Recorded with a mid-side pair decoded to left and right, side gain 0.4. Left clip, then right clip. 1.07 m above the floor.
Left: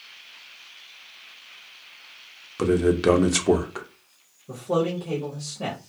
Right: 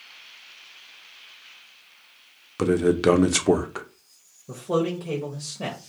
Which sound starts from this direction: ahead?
A man speaking, at 2.6 s.